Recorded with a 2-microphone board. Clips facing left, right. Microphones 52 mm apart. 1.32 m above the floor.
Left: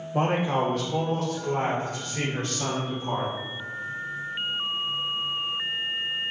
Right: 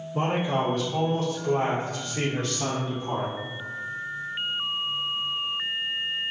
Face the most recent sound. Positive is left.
turn(degrees=25)  # may be behind; listen again after turning